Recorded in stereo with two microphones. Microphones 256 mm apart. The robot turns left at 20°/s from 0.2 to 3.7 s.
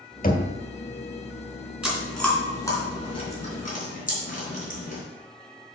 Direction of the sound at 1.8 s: 5° right (ahead or behind).